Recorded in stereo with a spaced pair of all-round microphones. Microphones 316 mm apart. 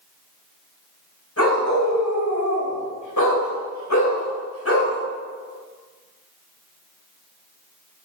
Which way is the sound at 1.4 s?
50° left (ahead or behind).